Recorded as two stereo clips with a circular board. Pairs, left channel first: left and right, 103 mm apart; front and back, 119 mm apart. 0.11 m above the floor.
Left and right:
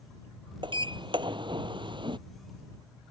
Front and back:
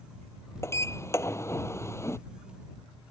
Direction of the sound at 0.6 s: 65° right.